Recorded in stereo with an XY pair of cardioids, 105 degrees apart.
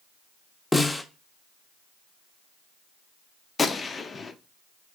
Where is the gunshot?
35° left, 0.5 m.